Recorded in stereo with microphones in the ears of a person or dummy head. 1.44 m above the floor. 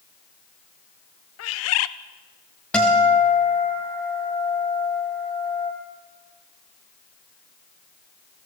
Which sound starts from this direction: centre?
A guitar, at 2.7 s.